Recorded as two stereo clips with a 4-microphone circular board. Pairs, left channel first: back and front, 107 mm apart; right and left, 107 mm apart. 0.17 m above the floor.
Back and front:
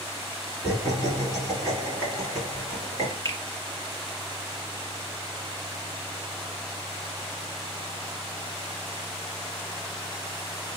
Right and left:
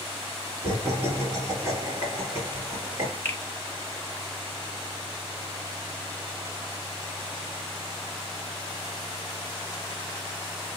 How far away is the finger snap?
About 1.2 m.